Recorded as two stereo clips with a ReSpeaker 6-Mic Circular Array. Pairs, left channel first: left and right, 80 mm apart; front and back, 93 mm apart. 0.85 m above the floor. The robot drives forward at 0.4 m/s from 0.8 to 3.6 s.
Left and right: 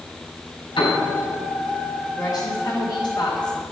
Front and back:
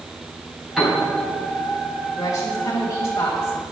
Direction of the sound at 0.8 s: 95° left.